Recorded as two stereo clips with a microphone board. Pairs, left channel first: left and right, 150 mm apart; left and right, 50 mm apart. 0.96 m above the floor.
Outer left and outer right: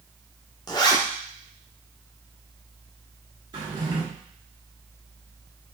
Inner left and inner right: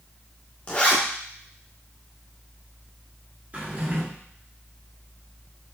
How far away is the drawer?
About 1.3 m.